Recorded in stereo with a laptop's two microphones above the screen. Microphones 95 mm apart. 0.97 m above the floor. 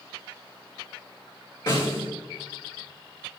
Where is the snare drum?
50° left (ahead or behind), 3.5 m.